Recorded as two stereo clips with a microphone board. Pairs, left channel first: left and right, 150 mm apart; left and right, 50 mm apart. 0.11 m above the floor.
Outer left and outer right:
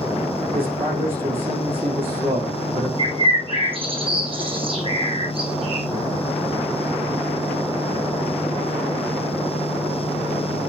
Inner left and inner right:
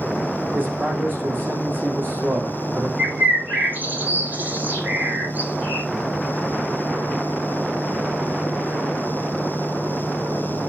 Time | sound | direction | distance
0.5 | a man speaking | 40° right (ahead or behind) | 6 m
3.0 | a bird | 35° right (ahead or behind) | 1.9 m